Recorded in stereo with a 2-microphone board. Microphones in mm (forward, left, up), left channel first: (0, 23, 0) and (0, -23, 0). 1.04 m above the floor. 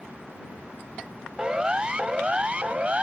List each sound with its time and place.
1.4 s a siren: 20° right (ahead or behind); by 3.0 s 30° right (ahead or behind)